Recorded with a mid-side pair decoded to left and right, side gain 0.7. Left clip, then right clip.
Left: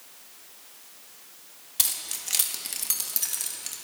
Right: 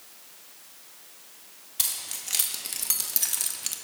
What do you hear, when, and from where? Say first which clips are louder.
1.8 s keys jangling: left 2 dB; 15° left, 1.6 m; by 3.8 s 30° right, 1.0 m